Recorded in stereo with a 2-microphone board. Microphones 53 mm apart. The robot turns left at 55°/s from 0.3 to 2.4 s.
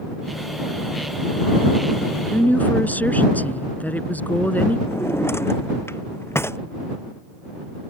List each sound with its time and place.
2.3 s a woman speaking: 35° left (ahead or behind); by 4.8 s 30° left (ahead or behind)
4.9 s a drawer: 50° left (ahead or behind)